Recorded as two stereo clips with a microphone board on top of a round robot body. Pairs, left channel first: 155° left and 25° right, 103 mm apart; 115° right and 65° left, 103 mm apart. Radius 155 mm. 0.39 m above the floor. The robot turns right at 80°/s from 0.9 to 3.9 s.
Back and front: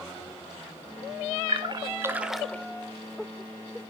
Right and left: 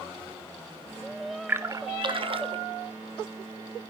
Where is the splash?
5° right, 1.7 m; by 2.6 s 90° left, 1.7 m.